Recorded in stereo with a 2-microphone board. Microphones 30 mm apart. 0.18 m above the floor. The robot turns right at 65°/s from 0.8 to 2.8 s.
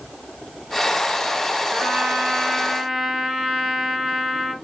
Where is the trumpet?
105° right, 3 m; by 4.5 s 35° right, 3 m.